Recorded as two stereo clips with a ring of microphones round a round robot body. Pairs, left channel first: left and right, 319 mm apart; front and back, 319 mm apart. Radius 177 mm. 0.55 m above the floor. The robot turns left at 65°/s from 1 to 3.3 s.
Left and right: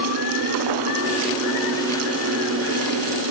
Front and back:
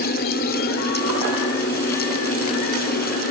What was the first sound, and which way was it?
Only background noise.